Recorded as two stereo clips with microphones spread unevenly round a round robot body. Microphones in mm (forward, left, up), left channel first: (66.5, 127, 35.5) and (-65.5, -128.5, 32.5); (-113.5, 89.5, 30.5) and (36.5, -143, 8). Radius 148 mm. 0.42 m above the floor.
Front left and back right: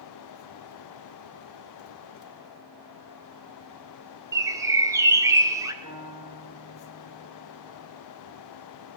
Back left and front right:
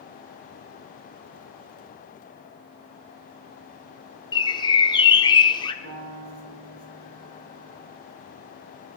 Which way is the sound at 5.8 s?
45° right.